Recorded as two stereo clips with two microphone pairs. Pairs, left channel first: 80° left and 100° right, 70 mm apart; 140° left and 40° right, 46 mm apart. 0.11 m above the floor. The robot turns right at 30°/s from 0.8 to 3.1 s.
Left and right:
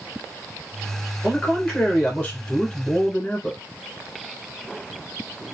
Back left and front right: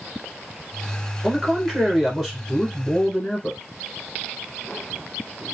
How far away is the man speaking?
About 1.8 m.